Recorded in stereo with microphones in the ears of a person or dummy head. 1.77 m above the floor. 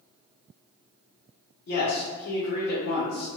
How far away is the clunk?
No clunk in this recording.